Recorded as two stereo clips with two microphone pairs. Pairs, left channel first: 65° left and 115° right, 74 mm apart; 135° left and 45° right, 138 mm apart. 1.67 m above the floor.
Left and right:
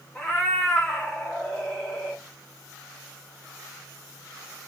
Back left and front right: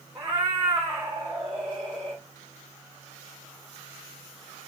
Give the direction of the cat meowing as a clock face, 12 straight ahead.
1 o'clock.